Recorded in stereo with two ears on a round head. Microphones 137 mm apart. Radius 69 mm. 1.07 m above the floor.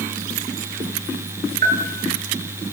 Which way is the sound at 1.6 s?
55° right (ahead or behind).